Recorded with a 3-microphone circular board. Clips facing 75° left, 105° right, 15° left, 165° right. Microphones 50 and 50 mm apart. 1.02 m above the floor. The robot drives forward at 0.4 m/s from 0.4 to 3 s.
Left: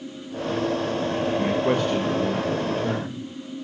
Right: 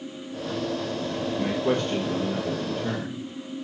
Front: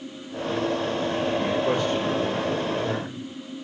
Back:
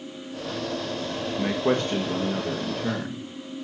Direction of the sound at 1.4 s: 150° left.